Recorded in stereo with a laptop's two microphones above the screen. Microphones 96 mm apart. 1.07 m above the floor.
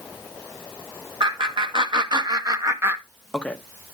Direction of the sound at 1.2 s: 60° right (ahead or behind).